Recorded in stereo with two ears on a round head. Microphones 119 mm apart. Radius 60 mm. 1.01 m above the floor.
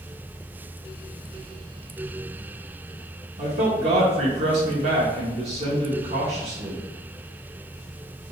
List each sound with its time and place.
3.4 s a man speaking: 50° right (ahead or behind), 1.0 m